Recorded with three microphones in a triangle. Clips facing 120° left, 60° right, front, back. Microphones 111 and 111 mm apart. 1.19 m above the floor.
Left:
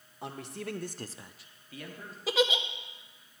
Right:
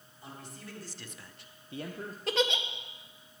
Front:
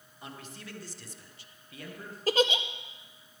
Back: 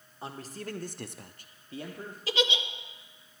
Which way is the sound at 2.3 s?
35° left.